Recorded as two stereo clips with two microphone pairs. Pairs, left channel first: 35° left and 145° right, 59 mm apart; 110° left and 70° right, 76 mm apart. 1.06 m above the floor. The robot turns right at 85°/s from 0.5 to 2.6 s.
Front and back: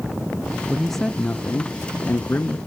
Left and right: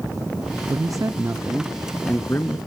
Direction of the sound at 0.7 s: 70° right.